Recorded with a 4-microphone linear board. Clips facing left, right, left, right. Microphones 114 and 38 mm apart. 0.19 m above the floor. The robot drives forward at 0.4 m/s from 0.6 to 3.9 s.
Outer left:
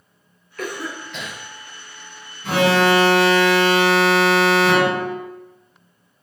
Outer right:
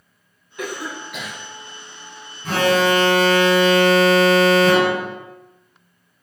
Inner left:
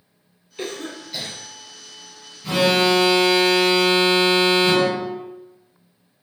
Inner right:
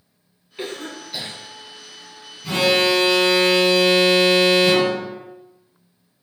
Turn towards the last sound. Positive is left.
turn(degrees=5)  # may be behind; listen again after turning